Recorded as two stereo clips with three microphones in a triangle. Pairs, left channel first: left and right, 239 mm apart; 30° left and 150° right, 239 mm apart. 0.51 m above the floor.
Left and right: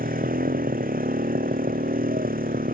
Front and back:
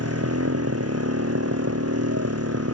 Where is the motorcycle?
145° right.